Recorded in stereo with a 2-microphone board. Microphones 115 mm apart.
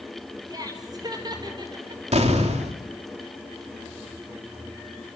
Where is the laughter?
35° right (ahead or behind), 6 m; by 2.0 s 45° right (ahead or behind), 5.5 m.